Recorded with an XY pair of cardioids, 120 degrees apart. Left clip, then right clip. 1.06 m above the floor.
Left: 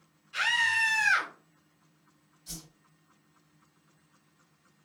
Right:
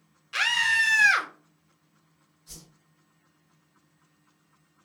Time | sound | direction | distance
0.3 | a scream | 70° right | 1.3 m
2.5 | a whoosh | 70° left | 1.7 m